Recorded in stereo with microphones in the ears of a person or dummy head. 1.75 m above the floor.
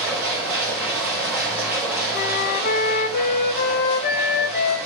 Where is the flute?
50° left (ahead or behind), 0.8 m.